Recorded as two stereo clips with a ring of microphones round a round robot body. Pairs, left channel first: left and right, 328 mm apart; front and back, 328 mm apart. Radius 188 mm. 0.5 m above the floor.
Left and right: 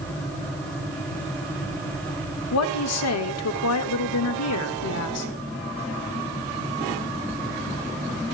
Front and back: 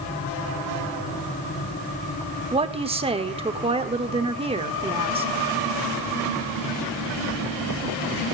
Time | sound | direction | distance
2.5 | a woman speaking | 110° left | 1.3 m